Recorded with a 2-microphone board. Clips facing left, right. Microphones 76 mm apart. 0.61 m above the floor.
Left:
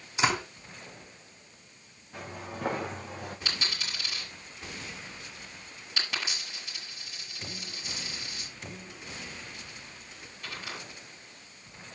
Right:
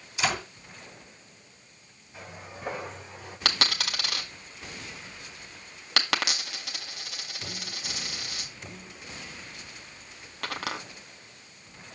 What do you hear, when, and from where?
0.2 s a door slam: 40° left (ahead or behind), 5 m
2.1 s footsteps: 85° left, 4.5 m; by 3.4 s 75° left (ahead or behind), 3.5 m
3.5 s a dropped coin: 75° right (ahead or behind), 1.7 m